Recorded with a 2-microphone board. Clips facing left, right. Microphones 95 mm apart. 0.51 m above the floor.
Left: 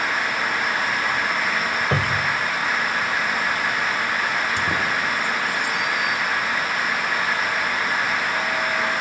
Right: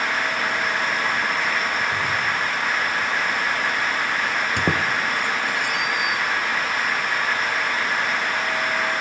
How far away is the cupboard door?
About 1.5 m.